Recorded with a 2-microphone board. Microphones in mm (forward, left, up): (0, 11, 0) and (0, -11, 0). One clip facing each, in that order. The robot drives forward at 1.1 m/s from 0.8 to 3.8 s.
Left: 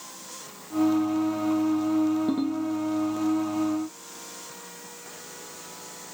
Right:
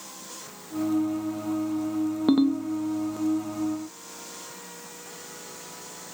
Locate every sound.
2.3 s a ringtone: 45° right (ahead or behind), 0.7 m; by 2.6 s 30° right (ahead or behind), 1.0 m